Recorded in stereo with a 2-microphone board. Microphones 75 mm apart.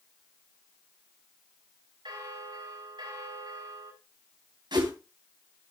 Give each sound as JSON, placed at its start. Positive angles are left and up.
{"t": 2.0, "sound": "a bell", "side_deg": -90, "distance_m": 3.5}
{"t": 4.7, "sound": "a whoosh", "side_deg": -80, "distance_m": 3.0}